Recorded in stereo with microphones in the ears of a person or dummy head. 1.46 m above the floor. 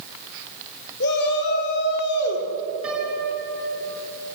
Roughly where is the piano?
Centre.